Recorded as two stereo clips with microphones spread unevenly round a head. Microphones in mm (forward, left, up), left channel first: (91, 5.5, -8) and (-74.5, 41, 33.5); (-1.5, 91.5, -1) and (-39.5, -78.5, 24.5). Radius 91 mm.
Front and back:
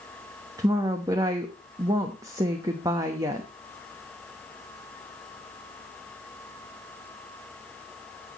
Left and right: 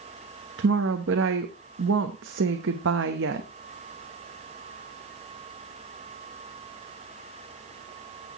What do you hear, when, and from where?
0.6 s a woman speaking: 115° right, 1.1 m